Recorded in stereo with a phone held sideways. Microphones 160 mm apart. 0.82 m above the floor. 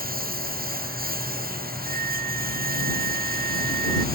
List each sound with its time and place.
0.0 s a lawn mower: 70° right (ahead or behind)
1.9 s a flute: 60° right (ahead or behind)